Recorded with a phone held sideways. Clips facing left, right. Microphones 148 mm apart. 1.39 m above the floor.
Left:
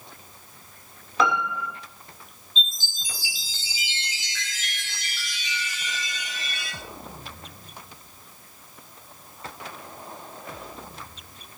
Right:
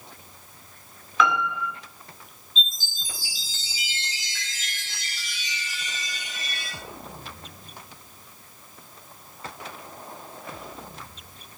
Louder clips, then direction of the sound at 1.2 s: Even; 40° left (ahead or behind).